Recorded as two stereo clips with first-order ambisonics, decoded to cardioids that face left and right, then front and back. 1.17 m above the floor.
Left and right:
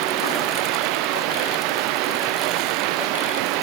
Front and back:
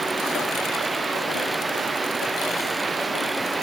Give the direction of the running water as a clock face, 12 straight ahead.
3 o'clock.